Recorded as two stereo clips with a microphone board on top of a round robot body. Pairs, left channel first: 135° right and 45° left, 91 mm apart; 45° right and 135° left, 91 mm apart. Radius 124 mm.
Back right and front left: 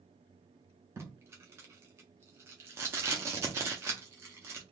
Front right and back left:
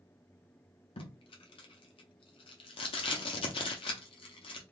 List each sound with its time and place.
1.0 s tape being pulled: 20° right, 0.6 m